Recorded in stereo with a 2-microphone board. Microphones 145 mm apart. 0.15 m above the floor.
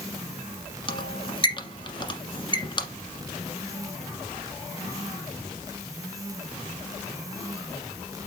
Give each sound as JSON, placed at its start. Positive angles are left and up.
{"t": 0.9, "sound": "a squeak", "side_deg": 30, "distance_m": 1.4}